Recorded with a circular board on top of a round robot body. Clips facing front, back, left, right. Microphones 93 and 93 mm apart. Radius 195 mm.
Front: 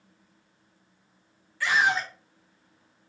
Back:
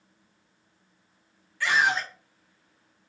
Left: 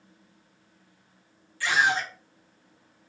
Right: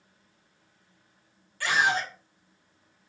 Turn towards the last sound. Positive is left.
turn(degrees=-85)